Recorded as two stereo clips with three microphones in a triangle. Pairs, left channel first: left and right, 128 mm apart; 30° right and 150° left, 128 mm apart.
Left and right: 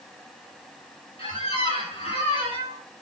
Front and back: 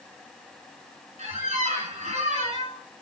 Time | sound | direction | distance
1.2 | a squeak | 130° left | 2.5 m